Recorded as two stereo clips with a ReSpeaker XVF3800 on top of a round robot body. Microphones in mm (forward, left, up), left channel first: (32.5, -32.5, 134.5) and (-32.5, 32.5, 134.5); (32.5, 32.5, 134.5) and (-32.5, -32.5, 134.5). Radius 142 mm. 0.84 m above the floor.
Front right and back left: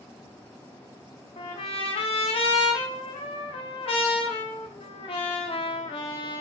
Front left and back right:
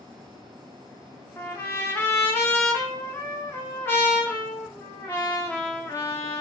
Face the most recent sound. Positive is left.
turn(degrees=-25)